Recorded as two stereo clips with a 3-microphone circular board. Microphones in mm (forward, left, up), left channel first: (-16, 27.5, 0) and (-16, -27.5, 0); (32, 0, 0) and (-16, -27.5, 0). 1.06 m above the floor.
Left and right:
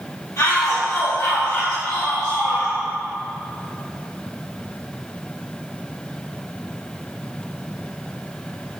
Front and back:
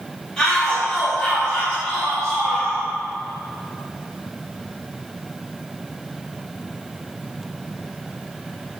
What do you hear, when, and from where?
0.4 s a shout: 105° left, 2 m